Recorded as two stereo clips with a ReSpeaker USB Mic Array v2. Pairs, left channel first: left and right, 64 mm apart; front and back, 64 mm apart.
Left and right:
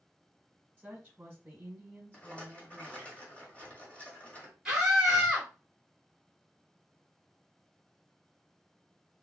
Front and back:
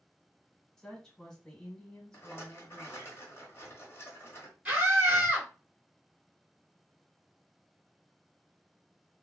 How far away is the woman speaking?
About 1.1 m.